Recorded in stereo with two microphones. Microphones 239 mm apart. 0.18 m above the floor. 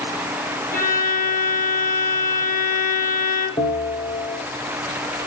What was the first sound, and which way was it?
A violin, 35° left (ahead or behind).